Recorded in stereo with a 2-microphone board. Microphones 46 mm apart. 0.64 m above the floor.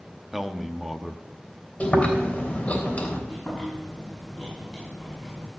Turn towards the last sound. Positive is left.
turn(degrees=-5)  # may be behind; listen again after turning